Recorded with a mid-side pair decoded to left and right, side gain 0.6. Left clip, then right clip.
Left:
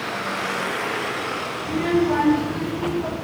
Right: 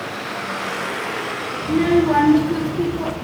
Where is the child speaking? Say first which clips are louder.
Right 5 dB; 20° right, 1.2 m; by 3.1 s 55° right, 2.5 m.